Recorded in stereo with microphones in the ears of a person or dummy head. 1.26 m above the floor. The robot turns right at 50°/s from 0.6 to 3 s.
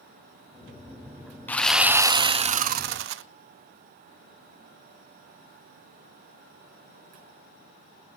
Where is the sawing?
170° left, 0.5 m; by 3.2 s 115° right, 0.5 m.